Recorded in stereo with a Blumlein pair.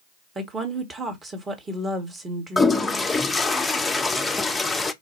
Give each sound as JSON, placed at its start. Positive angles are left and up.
{"t": 0.3, "sound": "a woman speaking", "azimuth_deg": -15, "distance_m": 1.3}
{"t": 2.6, "sound": "a toilet flushing", "azimuth_deg": 10, "distance_m": 0.5}